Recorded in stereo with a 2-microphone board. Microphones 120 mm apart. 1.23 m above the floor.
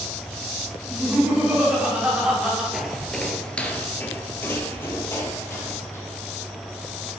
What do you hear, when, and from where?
0.9 s laughter: 10° right (ahead or behind), 3 m
2.7 s footsteps: centre (ahead or behind), 1.2 m; by 6.0 s 20° left (ahead or behind), 2.5 m